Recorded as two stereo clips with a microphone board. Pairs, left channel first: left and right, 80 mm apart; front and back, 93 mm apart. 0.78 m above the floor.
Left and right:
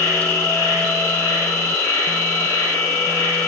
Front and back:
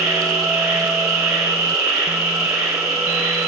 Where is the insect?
115° left, 0.7 m.